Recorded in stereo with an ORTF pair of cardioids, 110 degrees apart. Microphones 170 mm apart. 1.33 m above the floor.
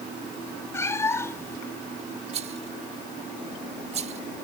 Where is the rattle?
40° right.